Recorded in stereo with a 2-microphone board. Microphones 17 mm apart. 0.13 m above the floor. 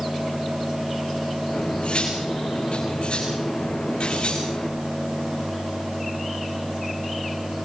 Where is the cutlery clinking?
85° left, 5.5 m.